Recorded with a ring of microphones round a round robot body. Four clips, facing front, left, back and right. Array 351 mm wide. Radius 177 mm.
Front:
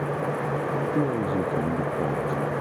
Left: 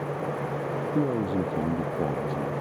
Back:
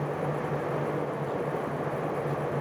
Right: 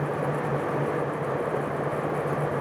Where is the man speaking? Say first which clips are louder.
Left 2 dB, front 6 dB; 50° left.